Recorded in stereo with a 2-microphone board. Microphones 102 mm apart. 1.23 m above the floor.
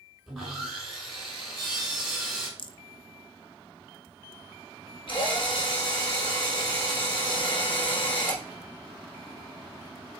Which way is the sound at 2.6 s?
50° left (ahead or behind).